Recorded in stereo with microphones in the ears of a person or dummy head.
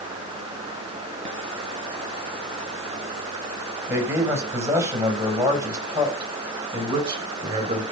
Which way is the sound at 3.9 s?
10° right (ahead or behind).